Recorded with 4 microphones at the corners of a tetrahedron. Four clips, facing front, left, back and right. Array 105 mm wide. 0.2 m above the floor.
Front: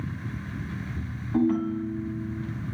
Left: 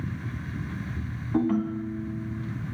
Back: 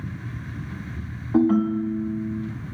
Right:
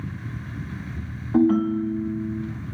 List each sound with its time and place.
1.3 s a ringtone: 145° right, 0.9 m